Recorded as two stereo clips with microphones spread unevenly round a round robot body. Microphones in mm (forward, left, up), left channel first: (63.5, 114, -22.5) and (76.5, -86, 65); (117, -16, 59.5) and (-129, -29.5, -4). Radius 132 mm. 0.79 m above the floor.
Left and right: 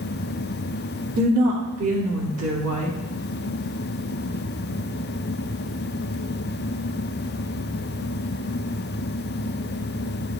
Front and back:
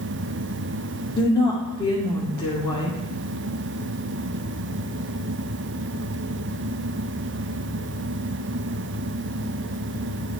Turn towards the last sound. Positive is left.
turn(degrees=-80)